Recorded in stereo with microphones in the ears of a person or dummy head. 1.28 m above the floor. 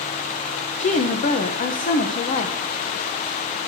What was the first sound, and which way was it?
A woman speaking, 40° left (ahead or behind).